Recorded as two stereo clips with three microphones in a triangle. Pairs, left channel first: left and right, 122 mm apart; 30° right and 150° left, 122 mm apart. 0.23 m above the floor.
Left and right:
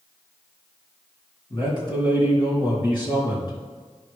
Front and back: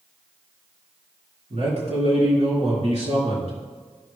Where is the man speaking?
140° left, 4 m.